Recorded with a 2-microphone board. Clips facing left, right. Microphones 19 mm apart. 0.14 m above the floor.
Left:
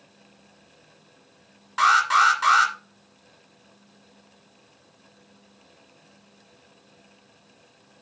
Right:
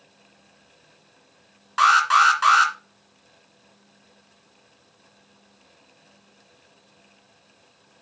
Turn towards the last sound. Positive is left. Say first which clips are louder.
# right 2 dB
turn(degrees=-20)  # may be behind; listen again after turning